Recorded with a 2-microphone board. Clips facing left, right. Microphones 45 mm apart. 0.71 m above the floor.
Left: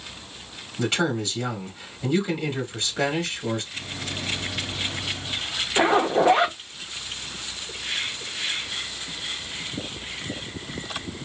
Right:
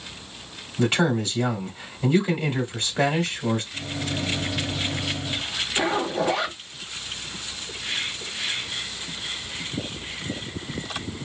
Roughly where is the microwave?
Centre.